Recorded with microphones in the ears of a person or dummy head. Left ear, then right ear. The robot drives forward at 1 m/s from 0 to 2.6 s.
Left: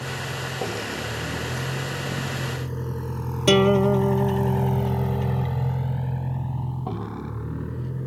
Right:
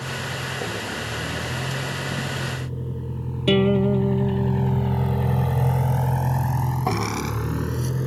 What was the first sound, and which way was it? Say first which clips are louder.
A vehicle: right 1 dB; 75° left (ahead or behind).